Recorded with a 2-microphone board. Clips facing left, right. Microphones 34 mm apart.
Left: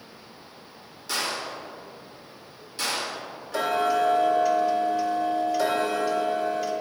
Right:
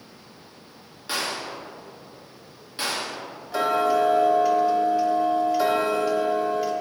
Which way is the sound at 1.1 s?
30° right (ahead or behind).